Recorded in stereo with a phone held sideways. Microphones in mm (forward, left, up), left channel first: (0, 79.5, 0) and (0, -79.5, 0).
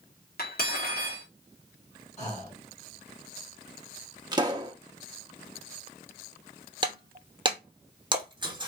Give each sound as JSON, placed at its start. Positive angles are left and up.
{"t": 0.4, "sound": "cutlery clinking", "side_deg": 70, "distance_m": 1.6}
{"t": 2.2, "sound": "breathing", "side_deg": 40, "distance_m": 2.0}
{"t": 4.3, "sound": "a pop", "side_deg": -25, "distance_m": 0.8}
{"t": 6.8, "sound": "breaking glass", "side_deg": -25, "distance_m": 1.0}